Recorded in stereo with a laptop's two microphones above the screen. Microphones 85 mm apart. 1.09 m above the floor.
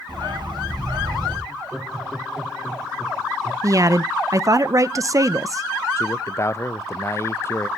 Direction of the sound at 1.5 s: 5° right (ahead or behind).